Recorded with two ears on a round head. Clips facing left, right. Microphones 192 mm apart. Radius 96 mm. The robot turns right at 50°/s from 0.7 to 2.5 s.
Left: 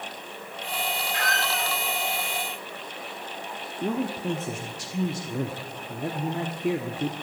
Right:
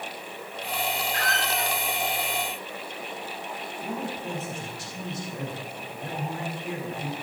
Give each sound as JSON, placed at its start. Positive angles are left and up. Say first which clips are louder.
{"t": 1.1, "sound": "a squeak", "louder": "even", "side_deg": -35, "distance_m": 3.5}
{"t": 3.8, "sound": "a man speaking", "louder": "left 6 dB", "side_deg": 65, "distance_m": 1.3}